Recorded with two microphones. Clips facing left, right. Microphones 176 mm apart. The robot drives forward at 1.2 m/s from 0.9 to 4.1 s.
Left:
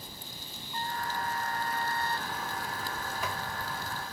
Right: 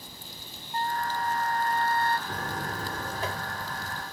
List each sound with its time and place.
0.7 s a trumpet: 65° right (ahead or behind); by 2.2 s 70° right (ahead or behind)
2.3 s a buzzer: 45° right (ahead or behind); by 4.0 s 20° right (ahead or behind)